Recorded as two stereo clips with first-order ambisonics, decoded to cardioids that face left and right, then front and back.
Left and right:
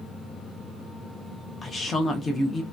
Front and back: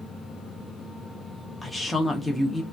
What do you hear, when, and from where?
1.6 s a woman speaking: 70° left, 0.5 m